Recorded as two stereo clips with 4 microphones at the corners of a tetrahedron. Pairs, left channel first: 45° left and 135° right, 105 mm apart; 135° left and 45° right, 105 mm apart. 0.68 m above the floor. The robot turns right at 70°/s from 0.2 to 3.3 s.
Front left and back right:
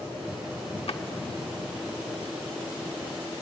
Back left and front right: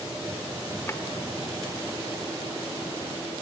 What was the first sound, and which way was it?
A drawer, 70° left.